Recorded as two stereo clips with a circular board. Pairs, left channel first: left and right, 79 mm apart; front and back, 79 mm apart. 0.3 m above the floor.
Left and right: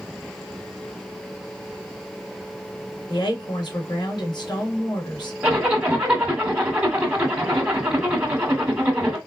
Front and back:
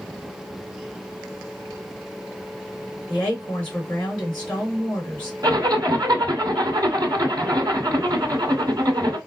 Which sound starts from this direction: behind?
A zipper, at 5.4 s.